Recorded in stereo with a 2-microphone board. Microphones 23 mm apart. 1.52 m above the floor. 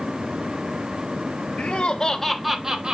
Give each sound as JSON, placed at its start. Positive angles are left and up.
{"t": 1.6, "sound": "laughter", "side_deg": 45, "distance_m": 1.3}